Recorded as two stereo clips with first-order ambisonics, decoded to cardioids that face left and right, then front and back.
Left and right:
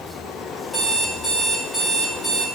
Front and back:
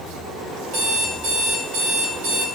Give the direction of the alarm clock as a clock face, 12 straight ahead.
6 o'clock.